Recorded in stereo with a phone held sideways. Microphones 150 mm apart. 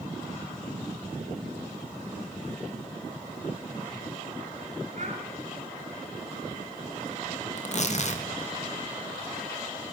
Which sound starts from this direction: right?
A child speaking, at 5.0 s.